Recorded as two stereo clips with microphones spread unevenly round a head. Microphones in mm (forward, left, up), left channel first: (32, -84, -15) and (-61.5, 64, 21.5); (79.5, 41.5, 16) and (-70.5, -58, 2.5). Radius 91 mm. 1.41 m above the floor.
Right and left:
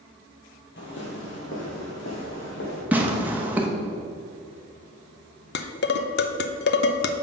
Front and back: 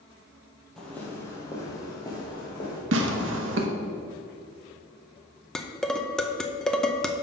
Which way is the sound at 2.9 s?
165° right.